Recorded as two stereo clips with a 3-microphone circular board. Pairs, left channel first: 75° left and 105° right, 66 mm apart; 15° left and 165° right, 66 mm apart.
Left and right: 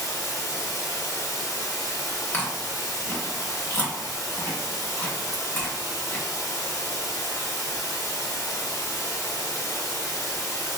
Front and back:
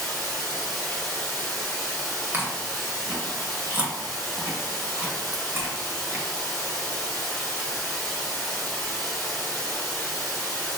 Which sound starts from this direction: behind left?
Chewing, at 2.3 s.